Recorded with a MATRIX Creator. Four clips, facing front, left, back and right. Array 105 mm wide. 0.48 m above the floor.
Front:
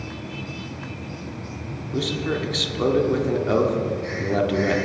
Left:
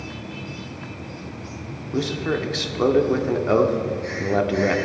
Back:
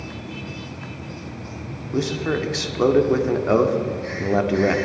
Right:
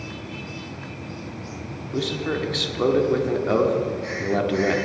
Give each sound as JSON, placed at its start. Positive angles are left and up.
{"t": 1.9, "sound": "a man speaking", "azimuth_deg": 155, "distance_m": 0.8}